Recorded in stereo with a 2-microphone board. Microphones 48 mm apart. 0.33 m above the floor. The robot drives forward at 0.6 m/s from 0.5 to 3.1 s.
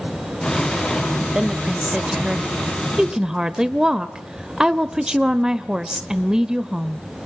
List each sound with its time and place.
1.4 s a woman speaking: 10° right (ahead or behind), 1.3 m; by 7.0 s 15° right (ahead or behind), 1.0 m